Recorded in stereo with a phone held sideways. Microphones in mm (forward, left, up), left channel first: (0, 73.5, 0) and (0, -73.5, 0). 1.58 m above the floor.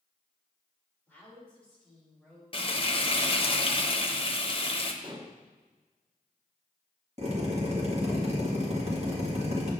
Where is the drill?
45° right (ahead or behind), 1.7 m.